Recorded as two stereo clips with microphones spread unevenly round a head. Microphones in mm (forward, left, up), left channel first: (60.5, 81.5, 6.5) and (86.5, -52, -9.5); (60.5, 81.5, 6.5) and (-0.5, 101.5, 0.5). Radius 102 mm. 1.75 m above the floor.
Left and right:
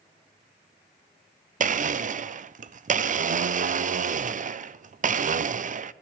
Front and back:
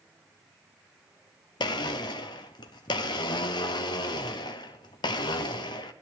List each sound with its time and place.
1.6 s a blender: 45° right, 0.6 m